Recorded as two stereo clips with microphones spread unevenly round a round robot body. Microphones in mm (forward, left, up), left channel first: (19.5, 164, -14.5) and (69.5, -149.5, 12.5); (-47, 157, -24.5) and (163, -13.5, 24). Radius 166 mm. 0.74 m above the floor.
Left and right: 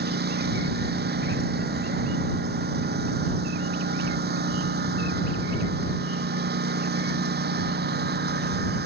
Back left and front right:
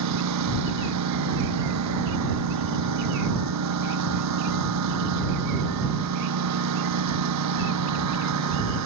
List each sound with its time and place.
0.0 s a lawn mower: 20° right